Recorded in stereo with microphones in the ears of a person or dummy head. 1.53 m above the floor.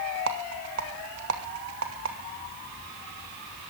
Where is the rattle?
75° right (ahead or behind), 3 m.